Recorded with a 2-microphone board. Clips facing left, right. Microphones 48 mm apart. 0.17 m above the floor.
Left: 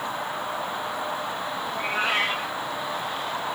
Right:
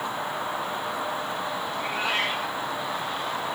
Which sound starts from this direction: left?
A cat meowing, at 1.7 s.